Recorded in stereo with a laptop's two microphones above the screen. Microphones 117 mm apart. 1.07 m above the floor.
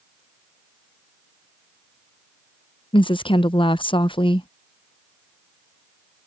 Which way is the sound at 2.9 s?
45° left (ahead or behind).